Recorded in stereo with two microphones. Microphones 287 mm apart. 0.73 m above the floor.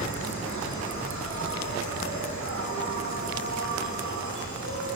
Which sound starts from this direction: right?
An insect, at 0.0 s.